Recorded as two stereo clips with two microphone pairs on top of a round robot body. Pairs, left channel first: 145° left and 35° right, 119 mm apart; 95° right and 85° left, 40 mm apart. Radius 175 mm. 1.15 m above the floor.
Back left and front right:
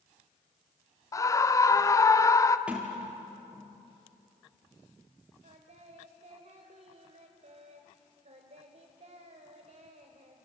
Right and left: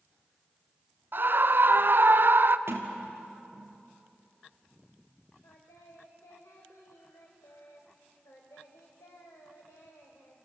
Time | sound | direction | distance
1.1 | a scream | 80° left | 1.2 m
2.7 | a sliding door | 50° left | 0.9 m
5.4 | singing | 70° right | 1.6 m